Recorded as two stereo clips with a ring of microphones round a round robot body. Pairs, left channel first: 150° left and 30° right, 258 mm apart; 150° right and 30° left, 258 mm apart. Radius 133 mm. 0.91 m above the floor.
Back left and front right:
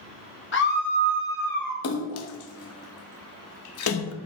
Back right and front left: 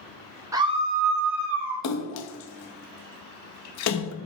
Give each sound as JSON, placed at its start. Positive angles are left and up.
{"t": 0.5, "sound": "a scream", "azimuth_deg": 105, "distance_m": 1.1}
{"t": 1.8, "sound": "a splash", "azimuth_deg": -175, "distance_m": 0.7}